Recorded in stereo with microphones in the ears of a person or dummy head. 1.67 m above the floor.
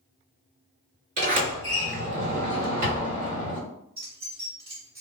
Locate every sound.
1.2 s a sliding door: 50° right (ahead or behind), 2.0 m
4.0 s keys jangling: 20° right (ahead or behind), 1.6 m